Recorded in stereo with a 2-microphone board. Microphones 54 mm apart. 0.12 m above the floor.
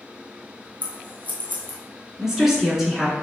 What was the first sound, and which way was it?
Scissors, 30° right (ahead or behind).